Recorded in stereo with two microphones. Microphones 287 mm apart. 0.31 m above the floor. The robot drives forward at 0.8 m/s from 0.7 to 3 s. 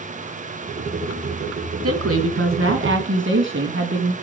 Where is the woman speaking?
55° right (ahead or behind), 2.5 m; by 4.1 s 45° right (ahead or behind), 3 m.